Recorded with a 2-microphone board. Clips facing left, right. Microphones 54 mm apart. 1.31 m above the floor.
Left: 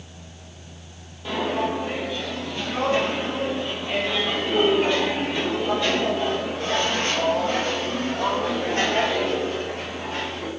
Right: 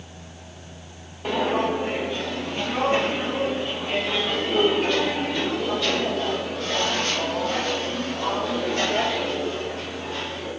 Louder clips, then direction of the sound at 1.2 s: Right 2 dB; 55° right (ahead or behind).